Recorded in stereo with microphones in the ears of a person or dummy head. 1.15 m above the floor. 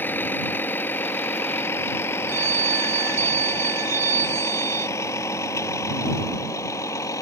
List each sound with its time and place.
0.0 s a vehicle: 5° left (ahead or behind); by 7.2 s 15° left (ahead or behind)
2.3 s a phone ringing: 15° right (ahead or behind)